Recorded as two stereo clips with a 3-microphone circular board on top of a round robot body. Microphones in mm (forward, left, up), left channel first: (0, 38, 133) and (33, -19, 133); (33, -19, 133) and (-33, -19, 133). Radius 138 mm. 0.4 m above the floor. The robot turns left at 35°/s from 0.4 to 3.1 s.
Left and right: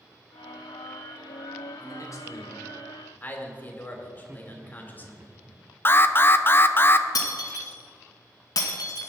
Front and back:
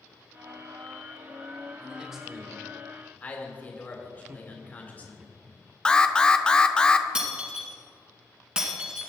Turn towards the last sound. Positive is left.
turn(degrees=105)